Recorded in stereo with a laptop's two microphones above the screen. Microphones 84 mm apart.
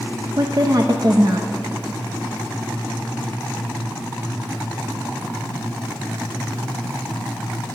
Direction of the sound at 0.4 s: 50° right (ahead or behind).